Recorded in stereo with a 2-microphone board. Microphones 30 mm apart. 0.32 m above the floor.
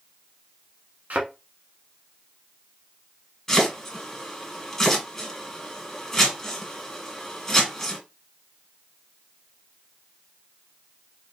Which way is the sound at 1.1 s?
60° right (ahead or behind).